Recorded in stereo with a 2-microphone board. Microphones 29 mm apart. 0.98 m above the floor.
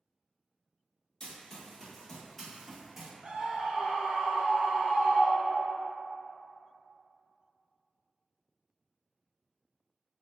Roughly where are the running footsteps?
Left.